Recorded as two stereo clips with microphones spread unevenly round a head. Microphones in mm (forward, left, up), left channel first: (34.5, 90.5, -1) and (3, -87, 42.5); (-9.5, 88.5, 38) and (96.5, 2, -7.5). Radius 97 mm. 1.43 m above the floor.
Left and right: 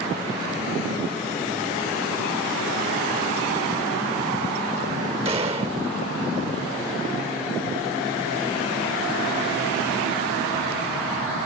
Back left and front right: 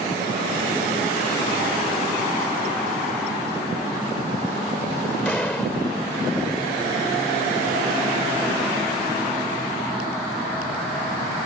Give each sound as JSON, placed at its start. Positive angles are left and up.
{"t": 5.2, "sound": "a gunshot", "azimuth_deg": -150}